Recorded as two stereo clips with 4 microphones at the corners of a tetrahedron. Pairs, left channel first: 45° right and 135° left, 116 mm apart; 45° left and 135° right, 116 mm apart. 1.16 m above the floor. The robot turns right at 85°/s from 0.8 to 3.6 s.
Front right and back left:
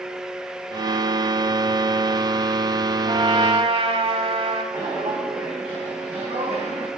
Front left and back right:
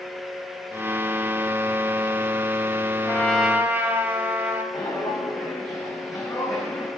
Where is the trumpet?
110° left, 1.6 m; by 4.6 s 155° left, 1.6 m.